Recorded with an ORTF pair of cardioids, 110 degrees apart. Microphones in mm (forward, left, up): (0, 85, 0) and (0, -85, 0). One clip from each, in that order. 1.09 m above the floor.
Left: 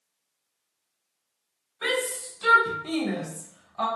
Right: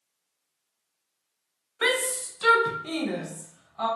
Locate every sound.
1.8 s a shout: 60° right, 0.7 m; by 3.9 s 35° left, 0.9 m